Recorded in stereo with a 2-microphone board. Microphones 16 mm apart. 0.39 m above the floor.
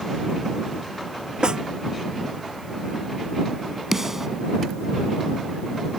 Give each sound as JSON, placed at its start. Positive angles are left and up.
{"t": 1.4, "sound": "a snare drum", "side_deg": -55}
{"t": 3.9, "sound": "a snare drum", "side_deg": -30}